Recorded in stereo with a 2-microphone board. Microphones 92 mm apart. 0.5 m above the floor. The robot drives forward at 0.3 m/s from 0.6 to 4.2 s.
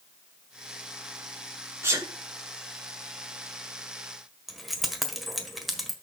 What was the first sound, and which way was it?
A sneeze, 30° right (ahead or behind).